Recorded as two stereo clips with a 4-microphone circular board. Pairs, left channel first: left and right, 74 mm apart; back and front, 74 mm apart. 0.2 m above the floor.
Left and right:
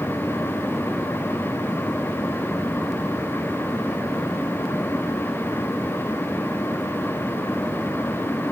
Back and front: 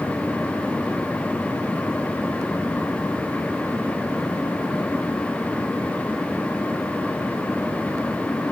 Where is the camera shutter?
I don't hear a camera shutter.